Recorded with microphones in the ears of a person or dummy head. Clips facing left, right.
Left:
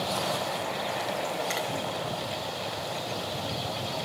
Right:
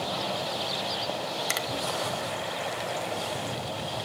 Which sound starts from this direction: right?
A finger snap, at 1.5 s.